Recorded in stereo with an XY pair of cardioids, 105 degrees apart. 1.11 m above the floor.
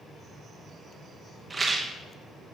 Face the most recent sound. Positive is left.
turn(degrees=-25)